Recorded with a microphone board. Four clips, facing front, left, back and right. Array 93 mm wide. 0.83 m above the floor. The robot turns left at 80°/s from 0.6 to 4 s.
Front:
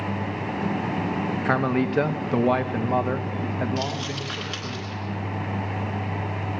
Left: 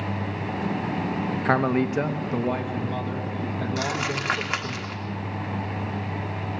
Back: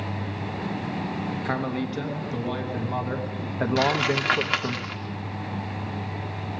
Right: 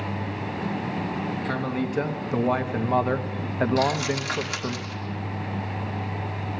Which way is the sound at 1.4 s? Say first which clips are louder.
Left 9 dB, front 7 dB; 60° left.